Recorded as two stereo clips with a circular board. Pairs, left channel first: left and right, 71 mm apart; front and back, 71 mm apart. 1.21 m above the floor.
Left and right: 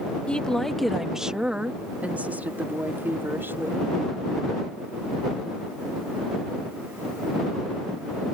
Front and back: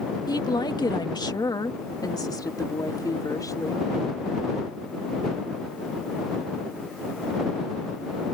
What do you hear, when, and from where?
0.3 s a woman speaking: 15° left; by 3.8 s 35° right